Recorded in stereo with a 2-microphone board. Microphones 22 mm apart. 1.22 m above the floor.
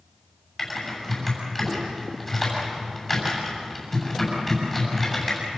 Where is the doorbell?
I don't hear a doorbell.